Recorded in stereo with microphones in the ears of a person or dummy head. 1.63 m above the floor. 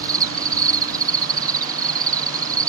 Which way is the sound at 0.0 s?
20° right (ahead or behind).